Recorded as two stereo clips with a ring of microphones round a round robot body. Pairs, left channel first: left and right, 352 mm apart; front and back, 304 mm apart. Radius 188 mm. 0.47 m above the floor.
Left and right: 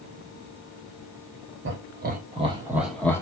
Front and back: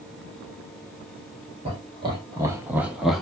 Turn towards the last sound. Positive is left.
turn(degrees=85)